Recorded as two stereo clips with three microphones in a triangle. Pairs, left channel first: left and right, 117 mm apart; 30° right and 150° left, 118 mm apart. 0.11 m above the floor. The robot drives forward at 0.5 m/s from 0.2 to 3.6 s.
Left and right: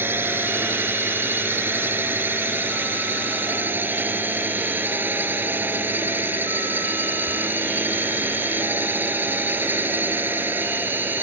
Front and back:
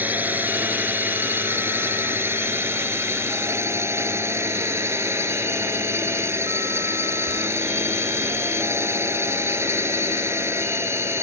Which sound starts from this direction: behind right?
A drone, at 0.0 s.